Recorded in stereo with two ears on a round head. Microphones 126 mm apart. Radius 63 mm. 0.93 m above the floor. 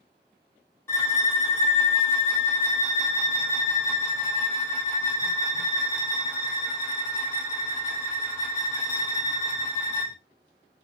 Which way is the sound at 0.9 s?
20° left (ahead or behind).